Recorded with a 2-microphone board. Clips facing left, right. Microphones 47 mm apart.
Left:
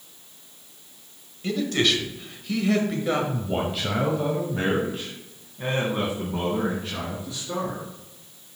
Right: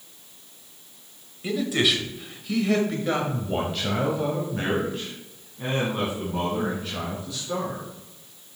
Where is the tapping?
No tapping in this recording.